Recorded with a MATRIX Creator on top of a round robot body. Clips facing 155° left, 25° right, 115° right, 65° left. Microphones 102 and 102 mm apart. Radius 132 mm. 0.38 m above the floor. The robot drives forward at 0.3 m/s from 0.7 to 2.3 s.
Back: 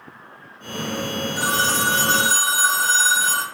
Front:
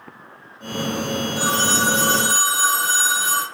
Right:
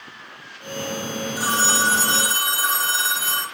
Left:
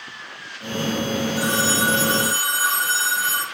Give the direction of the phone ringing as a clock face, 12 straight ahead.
5 o'clock.